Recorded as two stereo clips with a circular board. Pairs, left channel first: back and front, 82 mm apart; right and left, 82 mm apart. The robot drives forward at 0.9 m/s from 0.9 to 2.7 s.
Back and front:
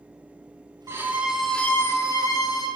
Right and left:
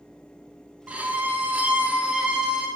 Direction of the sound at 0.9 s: 25° left.